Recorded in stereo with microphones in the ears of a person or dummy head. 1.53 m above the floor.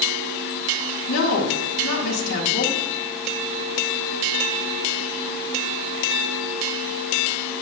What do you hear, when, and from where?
1.1 s a woman speaking: 65° left (ahead or behind), 2.5 m